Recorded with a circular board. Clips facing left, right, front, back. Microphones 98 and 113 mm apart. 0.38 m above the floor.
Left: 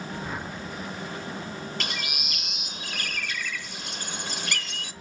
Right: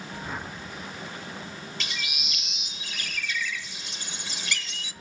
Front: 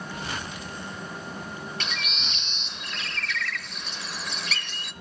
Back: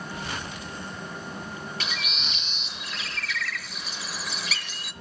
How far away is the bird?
About 0.8 m.